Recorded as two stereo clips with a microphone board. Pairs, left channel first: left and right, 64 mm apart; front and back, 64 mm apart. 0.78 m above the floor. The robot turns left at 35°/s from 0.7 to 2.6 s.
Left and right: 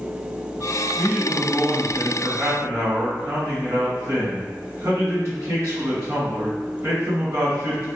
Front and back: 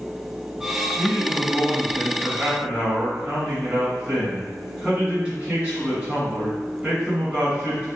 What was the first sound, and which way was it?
A man speaking, 50° right.